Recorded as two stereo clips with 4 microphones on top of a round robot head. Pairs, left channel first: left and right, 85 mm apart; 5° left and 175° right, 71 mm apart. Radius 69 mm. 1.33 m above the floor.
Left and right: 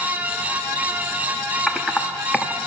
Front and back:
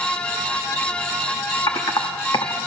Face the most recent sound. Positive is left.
turn(degrees=0)